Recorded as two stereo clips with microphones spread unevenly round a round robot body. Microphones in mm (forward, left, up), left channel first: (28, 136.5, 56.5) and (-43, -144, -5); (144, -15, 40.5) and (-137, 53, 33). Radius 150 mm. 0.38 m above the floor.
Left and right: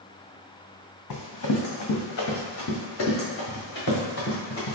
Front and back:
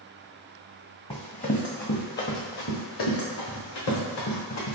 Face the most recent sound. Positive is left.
turn(degrees=20)